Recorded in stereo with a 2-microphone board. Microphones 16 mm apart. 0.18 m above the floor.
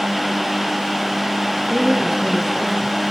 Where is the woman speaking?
40° right (ahead or behind), 2.5 m.